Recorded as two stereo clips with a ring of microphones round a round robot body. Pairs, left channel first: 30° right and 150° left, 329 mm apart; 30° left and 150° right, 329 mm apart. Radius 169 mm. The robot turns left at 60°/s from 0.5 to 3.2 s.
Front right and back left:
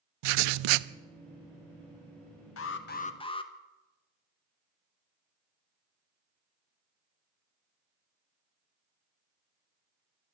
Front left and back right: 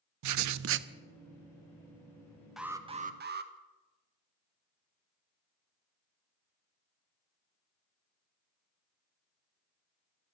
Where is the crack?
I don't hear a crack.